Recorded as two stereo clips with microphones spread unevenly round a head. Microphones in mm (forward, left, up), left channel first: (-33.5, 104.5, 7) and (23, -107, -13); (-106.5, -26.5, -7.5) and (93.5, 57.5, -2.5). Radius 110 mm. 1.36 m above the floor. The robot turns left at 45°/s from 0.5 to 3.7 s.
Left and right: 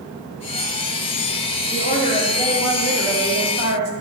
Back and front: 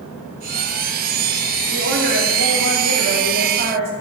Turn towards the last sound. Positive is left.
turn(degrees=-25)